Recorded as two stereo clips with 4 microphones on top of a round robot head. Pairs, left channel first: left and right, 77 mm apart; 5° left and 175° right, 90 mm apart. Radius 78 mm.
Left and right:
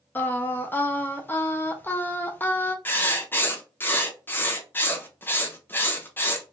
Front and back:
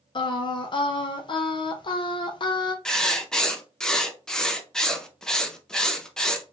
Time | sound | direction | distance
0.1 | singing | 25° left | 0.7 m
2.9 | writing | 80° left | 0.7 m